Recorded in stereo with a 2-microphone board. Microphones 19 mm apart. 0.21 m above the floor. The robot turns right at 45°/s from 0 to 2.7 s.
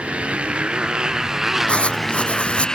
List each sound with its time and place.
0.0 s a motorcycle: 85° right; by 2.8 s 35° left
1.7 s writing: 70° left; by 2.8 s 115° left